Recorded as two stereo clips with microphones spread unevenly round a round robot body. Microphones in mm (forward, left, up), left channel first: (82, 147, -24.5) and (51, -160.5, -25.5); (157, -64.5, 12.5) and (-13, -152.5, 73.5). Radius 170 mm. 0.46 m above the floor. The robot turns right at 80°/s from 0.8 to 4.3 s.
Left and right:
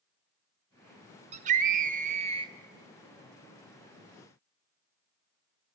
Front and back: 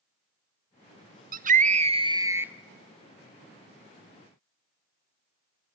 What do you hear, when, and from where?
1.3 s a scream: 135° right, 0.8 m; by 2.5 s 35° right, 0.8 m